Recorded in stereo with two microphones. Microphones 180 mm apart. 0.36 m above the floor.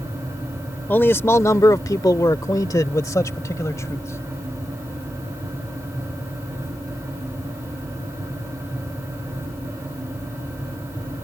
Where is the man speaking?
10° left (ahead or behind); by 4.2 s 15° left (ahead or behind).